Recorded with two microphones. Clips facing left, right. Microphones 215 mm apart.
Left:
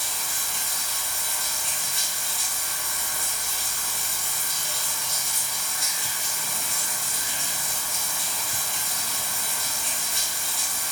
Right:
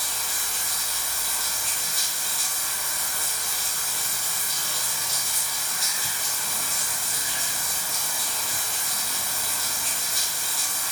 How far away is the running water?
About 0.8 m.